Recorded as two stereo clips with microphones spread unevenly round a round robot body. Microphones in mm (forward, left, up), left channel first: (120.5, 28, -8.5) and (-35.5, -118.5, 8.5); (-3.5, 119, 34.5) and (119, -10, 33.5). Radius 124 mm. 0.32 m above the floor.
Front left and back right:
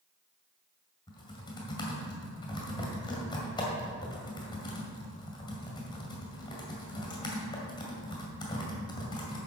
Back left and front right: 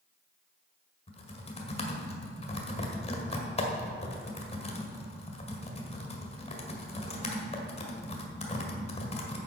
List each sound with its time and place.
1.1 s typing on a keyboard: 100° left, 1.7 m